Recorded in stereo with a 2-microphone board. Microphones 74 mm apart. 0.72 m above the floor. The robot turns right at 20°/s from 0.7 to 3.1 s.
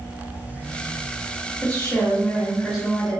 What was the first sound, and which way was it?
A woman speaking, 25° left (ahead or behind).